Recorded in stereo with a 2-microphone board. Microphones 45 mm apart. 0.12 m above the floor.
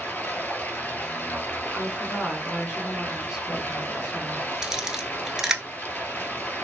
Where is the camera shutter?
15° right (ahead or behind), 0.5 m.